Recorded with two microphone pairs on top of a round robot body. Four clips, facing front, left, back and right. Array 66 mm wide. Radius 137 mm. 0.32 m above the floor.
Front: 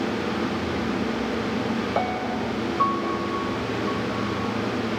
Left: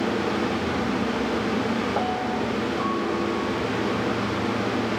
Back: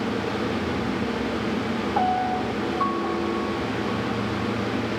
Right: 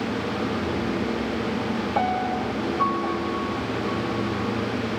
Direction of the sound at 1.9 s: 5° left.